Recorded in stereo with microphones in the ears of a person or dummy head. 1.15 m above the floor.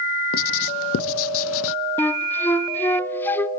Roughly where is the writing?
Left.